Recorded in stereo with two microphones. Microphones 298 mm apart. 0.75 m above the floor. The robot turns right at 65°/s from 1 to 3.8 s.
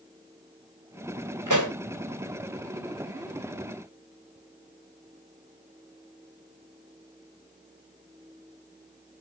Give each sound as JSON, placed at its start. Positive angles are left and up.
{"t": 1.5, "sound": "a pop", "side_deg": -80, "distance_m": 2.5}